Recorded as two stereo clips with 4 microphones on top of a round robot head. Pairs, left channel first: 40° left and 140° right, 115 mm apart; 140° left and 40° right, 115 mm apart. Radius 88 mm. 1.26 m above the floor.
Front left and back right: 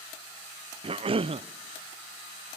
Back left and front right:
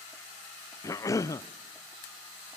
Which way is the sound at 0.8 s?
165° right.